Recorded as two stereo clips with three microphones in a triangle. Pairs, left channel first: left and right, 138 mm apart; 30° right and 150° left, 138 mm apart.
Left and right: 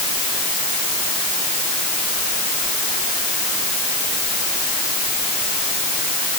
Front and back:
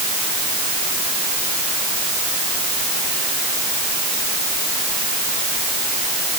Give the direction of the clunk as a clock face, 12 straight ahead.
No clunk in this recording.